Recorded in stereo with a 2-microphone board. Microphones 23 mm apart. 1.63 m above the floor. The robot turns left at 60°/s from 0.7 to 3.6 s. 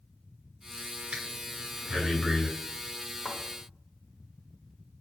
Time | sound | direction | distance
1.1 | breathing | 50° right (ahead or behind) | 2 m
3.2 | a thud | 50° left (ahead or behind) | 1.5 m